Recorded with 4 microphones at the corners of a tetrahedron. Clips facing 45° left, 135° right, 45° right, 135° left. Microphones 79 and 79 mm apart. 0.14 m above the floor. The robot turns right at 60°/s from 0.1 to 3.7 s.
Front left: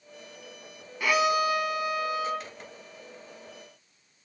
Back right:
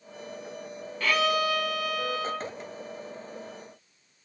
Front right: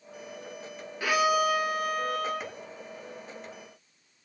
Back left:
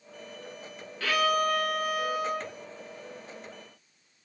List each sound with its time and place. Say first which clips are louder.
1.0 s a violin: front left 1 dB, front right 1 dB; 10° right, 1.6 m; by 2.5 s 80° left, 1.6 m